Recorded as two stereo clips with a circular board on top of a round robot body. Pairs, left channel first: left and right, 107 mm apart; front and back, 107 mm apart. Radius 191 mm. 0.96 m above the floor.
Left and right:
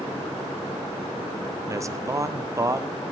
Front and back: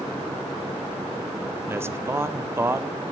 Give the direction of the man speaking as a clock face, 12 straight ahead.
4 o'clock.